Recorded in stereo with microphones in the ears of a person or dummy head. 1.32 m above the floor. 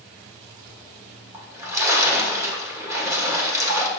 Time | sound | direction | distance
1.3 | a splash | 15° right (ahead or behind) | 1.7 m